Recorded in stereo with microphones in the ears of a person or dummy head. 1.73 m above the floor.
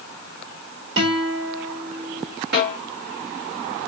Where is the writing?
I don't hear writing.